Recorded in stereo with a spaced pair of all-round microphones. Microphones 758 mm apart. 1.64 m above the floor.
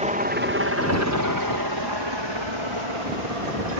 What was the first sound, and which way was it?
A helicopter, 10° right (ahead or behind).